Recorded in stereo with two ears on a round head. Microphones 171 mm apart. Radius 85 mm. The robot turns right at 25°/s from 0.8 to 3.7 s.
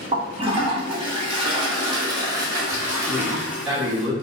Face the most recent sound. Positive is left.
turn(degrees=-5)  # may be behind; listen again after turning